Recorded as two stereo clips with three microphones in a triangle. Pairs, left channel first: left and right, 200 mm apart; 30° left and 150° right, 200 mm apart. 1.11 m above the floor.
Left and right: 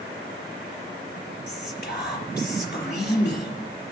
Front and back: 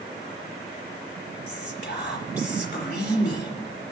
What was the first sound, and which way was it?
Whispering, 55° left.